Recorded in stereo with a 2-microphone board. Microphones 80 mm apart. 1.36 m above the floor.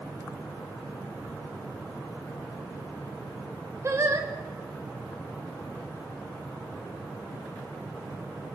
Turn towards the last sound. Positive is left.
turn(degrees=-35)  # may be behind; listen again after turning